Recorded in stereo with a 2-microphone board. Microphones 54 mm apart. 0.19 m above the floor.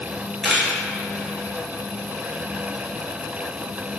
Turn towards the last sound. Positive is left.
turn(degrees=-5)  # may be behind; listen again after turning